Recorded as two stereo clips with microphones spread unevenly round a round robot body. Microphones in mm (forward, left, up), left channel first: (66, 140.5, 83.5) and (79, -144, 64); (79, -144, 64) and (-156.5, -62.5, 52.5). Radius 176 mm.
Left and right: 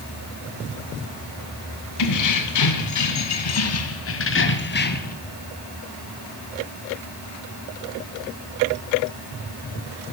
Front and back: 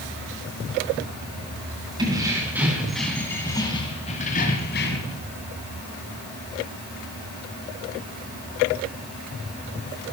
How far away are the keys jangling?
About 2.5 m.